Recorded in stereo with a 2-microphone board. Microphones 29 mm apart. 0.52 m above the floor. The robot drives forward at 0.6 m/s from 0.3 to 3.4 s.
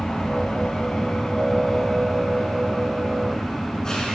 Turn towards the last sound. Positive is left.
turn(degrees=20)  # may be behind; listen again after turning